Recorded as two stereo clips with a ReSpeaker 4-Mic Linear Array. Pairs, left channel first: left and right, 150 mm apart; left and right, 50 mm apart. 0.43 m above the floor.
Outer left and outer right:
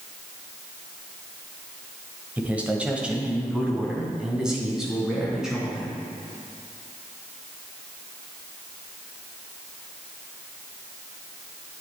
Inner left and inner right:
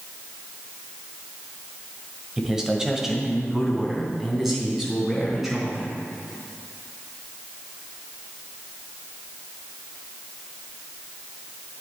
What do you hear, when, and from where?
2.4 s a man speaking: 10° right (ahead or behind), 1.6 m; by 6.0 s 5° right (ahead or behind), 4.5 m